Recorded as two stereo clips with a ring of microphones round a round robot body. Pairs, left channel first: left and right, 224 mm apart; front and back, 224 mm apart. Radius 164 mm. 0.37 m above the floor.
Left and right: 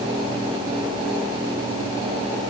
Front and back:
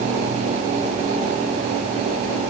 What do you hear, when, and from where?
Only background noise.